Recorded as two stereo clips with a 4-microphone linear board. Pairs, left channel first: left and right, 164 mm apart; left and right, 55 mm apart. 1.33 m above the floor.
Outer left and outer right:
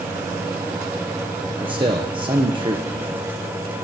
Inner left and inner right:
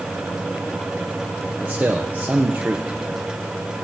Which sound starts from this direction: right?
A man speaking, at 1.6 s.